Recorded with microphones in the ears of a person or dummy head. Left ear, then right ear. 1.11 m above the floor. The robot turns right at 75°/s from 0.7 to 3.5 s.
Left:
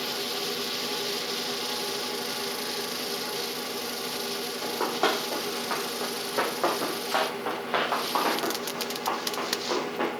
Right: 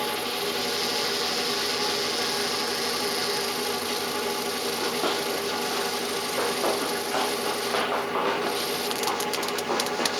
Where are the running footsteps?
60° left (ahead or behind), 3 m; by 10.1 s 5° left (ahead or behind), 5.5 m.